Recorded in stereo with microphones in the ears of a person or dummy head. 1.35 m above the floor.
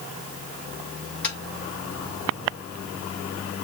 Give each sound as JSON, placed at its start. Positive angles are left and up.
{"t": 1.2, "sound": "tapping", "side_deg": 10, "distance_m": 4.5}